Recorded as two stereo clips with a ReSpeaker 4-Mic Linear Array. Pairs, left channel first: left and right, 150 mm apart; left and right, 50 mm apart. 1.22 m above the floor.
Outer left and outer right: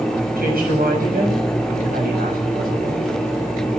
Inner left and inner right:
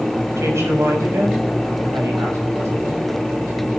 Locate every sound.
0.4 s a woman speaking: 85° right, 7 m